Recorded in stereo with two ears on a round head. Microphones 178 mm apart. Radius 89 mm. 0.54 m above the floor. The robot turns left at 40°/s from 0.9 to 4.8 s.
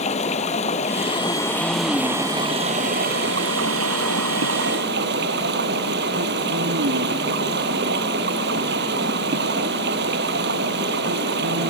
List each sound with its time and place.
0.0 s running water: 35° left; by 11.7 s 120° right